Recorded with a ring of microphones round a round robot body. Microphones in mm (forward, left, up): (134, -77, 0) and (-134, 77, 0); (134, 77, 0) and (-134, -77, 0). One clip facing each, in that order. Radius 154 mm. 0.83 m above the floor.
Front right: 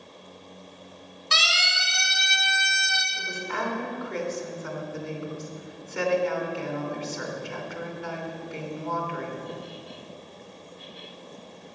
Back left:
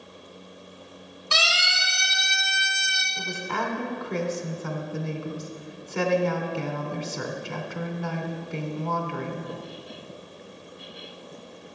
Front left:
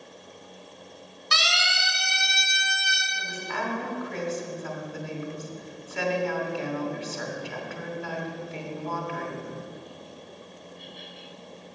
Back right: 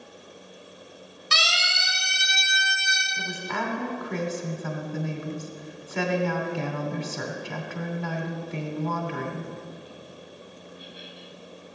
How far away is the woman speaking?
About 3 m.